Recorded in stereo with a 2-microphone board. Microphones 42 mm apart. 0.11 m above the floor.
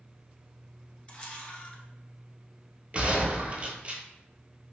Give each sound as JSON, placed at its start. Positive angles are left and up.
{"t": 1.1, "sound": "a camera shutter", "side_deg": 25, "distance_m": 0.8}
{"t": 2.9, "sound": "a gunshot", "side_deg": -30, "distance_m": 0.8}